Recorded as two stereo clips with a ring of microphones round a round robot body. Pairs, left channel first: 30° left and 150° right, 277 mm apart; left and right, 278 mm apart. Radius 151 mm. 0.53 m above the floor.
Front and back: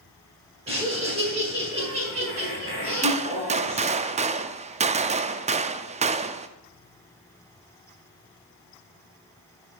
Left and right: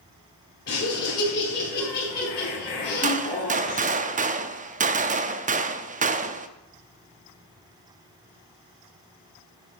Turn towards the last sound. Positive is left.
turn(degrees=-110)